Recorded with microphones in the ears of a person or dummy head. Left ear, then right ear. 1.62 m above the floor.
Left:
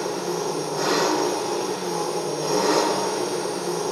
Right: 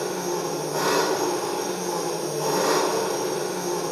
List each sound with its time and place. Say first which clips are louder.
0.0 s an engine running: left 1 dB; 40° right (ahead or behind), 4.5 m